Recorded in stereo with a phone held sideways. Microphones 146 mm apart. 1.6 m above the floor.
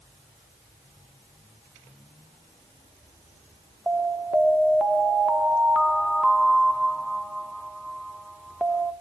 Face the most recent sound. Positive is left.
turn(degrees=0)  # may be behind; listen again after turning